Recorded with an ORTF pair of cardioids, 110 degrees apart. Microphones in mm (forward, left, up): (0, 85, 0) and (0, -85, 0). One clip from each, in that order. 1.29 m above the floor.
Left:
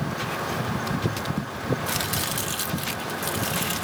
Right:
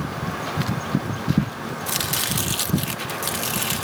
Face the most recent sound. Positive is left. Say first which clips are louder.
# right 2 dB
turn(degrees=-30)